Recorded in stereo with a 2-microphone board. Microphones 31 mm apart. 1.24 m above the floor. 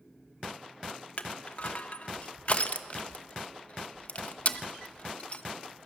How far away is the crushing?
About 0.9 m.